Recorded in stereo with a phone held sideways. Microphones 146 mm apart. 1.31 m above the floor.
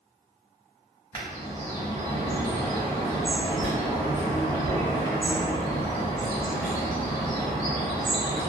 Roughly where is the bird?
Centre.